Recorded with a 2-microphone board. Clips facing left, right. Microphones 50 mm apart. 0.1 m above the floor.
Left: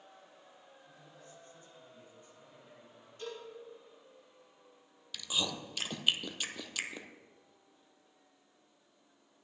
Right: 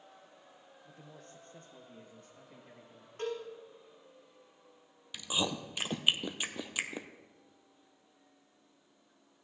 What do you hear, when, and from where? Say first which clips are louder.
0.8 s a man speaking: right 5 dB; 50° right (ahead or behind), 2.0 m; by 3.1 s 60° right (ahead or behind), 3.5 m
3.2 s a cowbell: right 7 dB; 50° right (ahead or behind), 5.5 m
5.1 s chewing: right 2 dB; 20° right (ahead or behind), 0.9 m